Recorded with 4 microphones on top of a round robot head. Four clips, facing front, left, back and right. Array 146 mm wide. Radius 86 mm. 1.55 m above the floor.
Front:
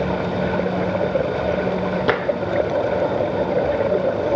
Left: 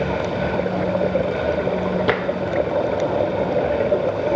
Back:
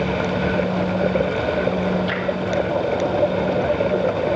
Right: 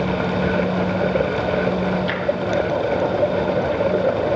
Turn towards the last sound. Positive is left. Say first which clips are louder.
# left 5 dB, front 5 dB
turn(degrees=40)